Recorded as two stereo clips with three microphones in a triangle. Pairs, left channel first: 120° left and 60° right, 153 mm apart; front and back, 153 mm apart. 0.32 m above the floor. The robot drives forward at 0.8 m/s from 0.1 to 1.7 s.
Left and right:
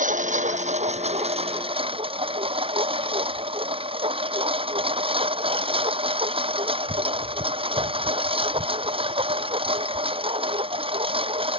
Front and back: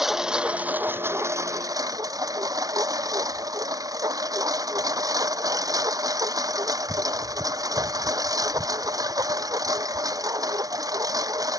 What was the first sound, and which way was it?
A lawn mower, 90° right.